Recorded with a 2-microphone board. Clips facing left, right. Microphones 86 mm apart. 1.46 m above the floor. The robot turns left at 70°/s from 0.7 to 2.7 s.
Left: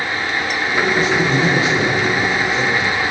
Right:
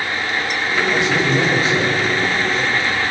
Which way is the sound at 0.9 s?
85° right.